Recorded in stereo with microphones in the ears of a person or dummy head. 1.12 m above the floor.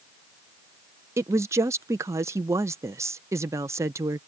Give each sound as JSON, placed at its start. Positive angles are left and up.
{"t": 1.2, "sound": "a woman speaking", "side_deg": -15}